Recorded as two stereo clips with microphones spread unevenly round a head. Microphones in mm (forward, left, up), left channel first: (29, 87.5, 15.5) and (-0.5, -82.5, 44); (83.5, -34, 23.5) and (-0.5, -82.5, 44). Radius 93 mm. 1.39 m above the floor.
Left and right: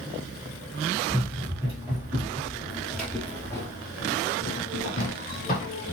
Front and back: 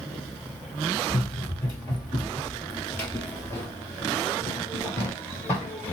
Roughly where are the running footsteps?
Ahead right.